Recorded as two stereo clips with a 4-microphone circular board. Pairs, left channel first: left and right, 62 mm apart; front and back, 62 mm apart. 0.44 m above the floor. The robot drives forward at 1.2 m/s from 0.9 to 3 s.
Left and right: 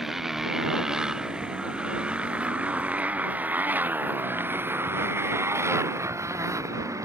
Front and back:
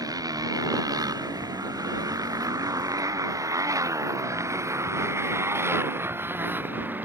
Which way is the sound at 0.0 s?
175° right.